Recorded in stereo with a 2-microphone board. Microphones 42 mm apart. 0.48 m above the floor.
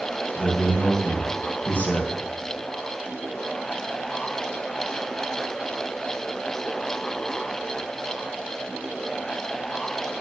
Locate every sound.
0.3 s a man speaking: 50° left (ahead or behind), 5 m